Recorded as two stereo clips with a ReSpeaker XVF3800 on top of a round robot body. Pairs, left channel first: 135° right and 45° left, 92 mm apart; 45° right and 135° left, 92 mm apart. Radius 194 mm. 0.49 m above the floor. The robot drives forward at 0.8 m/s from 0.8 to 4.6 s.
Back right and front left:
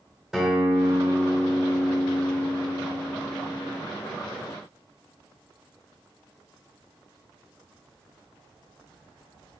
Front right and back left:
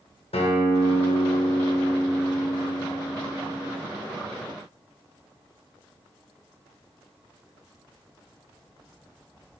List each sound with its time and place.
0.3 s a guitar: 40° right, 1.7 m; by 3.8 s 135° right, 1.6 m